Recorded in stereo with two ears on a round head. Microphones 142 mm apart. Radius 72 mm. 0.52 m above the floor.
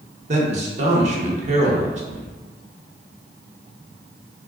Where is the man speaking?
45° right (ahead or behind), 0.9 m.